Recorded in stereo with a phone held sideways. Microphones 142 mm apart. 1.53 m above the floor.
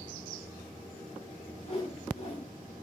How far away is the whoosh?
About 2.5 m.